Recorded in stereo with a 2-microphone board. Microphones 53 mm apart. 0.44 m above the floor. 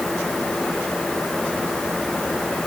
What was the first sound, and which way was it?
Only background noise.